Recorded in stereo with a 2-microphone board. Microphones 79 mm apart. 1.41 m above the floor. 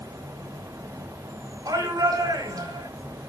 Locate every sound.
0.0 s an insect: 75° right (ahead or behind), 3.5 m
1.6 s a shout: 55° right (ahead or behind), 7.5 m